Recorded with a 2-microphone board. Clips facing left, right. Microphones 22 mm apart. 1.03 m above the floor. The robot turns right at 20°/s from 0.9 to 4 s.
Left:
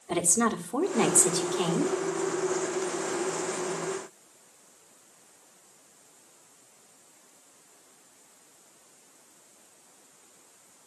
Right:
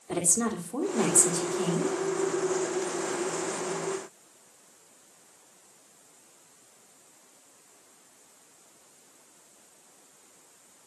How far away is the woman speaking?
About 2.5 m.